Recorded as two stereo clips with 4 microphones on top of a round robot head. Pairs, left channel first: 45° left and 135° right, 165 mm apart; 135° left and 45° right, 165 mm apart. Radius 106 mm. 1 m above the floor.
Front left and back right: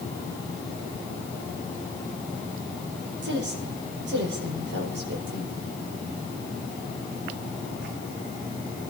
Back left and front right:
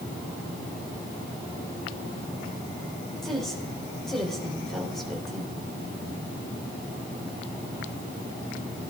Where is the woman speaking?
135° right, 4.5 m.